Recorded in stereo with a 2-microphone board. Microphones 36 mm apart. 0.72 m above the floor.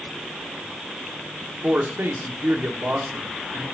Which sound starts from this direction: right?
A man speaking, at 1.6 s.